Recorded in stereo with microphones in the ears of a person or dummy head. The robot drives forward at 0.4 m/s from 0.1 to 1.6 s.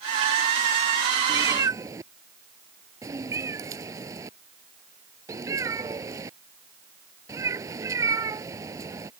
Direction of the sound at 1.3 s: 20° right (ahead or behind).